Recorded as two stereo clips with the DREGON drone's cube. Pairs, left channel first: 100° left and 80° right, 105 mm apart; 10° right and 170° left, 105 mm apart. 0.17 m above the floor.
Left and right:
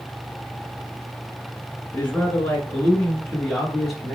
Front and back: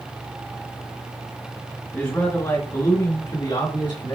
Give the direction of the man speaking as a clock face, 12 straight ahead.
11 o'clock.